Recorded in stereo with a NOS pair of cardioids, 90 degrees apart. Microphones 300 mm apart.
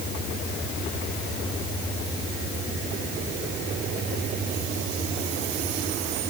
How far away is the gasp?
I don't hear a gasp.